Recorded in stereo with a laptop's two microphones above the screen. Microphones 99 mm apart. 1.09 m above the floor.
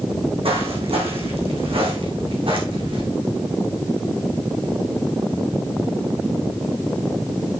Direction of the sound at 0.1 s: 70° right (ahead or behind).